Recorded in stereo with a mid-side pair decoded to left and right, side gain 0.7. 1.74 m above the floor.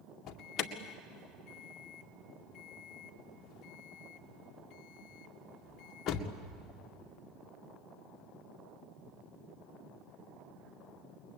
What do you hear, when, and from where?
0.3 s an alarm: 45° left, 2 m